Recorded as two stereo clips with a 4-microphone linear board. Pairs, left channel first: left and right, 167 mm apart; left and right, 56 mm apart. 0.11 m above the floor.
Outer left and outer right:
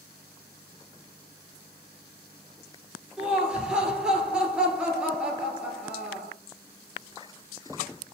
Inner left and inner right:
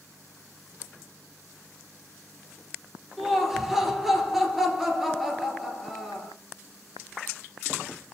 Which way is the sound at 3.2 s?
5° right (ahead or behind).